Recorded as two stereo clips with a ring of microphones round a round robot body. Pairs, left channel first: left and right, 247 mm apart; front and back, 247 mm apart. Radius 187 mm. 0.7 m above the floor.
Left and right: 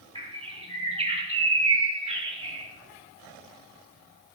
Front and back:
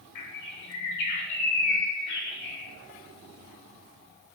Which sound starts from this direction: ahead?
A bird, at 0.1 s.